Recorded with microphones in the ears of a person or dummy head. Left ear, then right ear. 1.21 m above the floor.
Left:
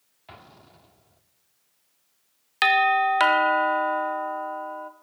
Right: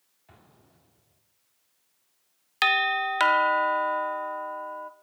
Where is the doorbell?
5° right (ahead or behind), 0.7 m.